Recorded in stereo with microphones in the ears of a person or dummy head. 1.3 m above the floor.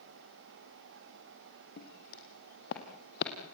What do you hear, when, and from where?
1.8 s footsteps: 50° left (ahead or behind), 3 m; by 3.3 s 55° left (ahead or behind), 2.5 m